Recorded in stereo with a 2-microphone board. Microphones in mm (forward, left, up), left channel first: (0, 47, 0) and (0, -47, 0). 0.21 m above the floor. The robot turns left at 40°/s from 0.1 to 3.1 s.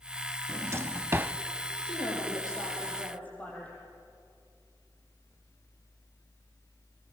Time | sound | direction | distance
0.5 | a drawer | 30° right (ahead or behind) | 0.6 m
1.8 | a woman speaking | 70° left | 9 m